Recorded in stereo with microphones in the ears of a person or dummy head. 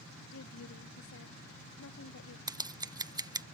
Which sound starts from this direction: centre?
Scissors, at 2.5 s.